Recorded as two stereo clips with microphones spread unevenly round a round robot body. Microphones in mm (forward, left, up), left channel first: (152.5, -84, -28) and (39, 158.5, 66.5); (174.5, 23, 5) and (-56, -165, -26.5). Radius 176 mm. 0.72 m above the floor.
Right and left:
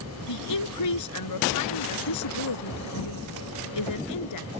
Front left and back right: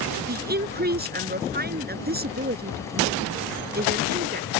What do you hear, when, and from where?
0.3 s a woman speaking: 80° right